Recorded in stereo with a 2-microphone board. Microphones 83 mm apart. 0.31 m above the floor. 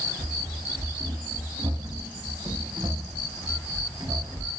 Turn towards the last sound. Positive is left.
turn(degrees=-65)  # may be behind; listen again after turning